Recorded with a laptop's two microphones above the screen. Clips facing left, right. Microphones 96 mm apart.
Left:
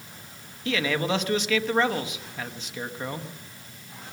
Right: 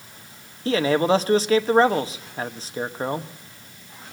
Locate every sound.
0.7 s a man speaking: 35° right (ahead or behind), 1.2 m